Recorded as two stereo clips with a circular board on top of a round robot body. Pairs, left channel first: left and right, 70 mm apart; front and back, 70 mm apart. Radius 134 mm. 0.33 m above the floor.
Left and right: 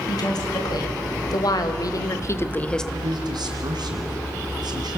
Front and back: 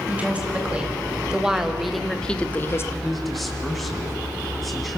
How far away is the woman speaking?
About 4.5 m.